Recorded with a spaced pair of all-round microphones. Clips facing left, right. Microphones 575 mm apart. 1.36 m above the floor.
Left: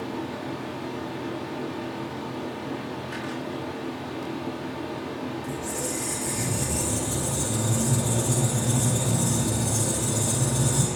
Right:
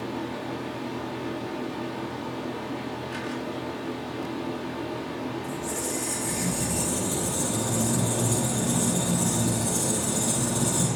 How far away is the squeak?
About 4.5 m.